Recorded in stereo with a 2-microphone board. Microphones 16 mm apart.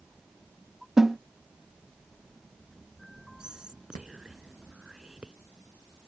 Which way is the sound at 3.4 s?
85° right.